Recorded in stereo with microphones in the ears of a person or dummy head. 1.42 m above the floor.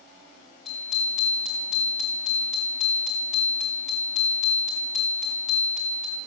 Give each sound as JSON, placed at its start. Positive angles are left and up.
{"t": 0.7, "sound": "a bicycle bell", "side_deg": 0, "distance_m": 2.5}